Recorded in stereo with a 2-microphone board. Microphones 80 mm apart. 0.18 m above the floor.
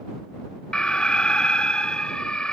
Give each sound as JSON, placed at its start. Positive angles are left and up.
{"t": 0.7, "sound": "an alarm", "side_deg": 10}